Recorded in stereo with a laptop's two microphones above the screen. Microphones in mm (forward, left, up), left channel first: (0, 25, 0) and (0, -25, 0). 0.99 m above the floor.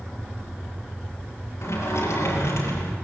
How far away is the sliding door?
About 5.5 m.